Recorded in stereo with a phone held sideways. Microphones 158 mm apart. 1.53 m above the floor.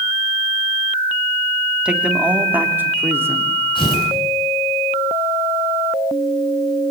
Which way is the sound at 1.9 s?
5° right (ahead or behind).